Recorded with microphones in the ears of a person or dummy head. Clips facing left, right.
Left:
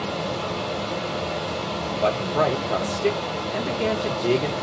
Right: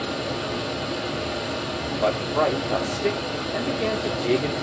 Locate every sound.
0.0 s running water: 15° right (ahead or behind), 1.5 m
1.9 s a man speaking: centre (ahead or behind), 0.6 m